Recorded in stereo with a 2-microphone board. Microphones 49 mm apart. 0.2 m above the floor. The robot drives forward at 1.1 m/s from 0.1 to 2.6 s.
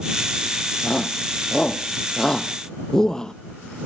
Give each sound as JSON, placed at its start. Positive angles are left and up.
{"t": 0.8, "sound": "a shout", "side_deg": 10}